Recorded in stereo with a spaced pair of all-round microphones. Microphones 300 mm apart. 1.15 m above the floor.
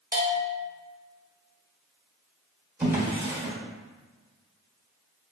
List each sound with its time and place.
0.1 s a bell: 30° right (ahead or behind), 1.0 m
2.8 s a drawer: 5° right (ahead or behind), 1.1 m